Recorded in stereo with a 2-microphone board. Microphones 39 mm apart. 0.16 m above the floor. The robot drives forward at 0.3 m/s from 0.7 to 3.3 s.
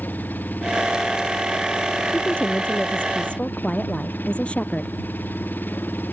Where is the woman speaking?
30° left (ahead or behind).